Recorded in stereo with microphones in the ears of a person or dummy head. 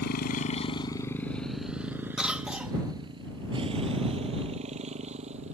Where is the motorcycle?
60° left (ahead or behind); by 5.5 s 35° right (ahead or behind).